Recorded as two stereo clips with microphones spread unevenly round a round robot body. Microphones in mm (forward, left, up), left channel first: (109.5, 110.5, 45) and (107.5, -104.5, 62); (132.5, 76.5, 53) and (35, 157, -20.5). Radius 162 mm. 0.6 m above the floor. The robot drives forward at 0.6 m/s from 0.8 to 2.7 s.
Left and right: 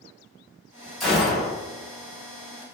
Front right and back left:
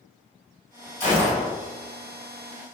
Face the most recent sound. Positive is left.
turn(degrees=65)